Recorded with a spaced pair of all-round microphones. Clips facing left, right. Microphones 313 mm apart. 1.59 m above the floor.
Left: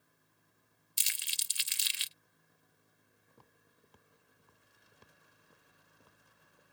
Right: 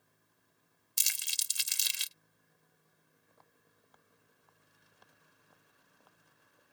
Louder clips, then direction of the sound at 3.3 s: Left 4 dB; 40° left (ahead or behind).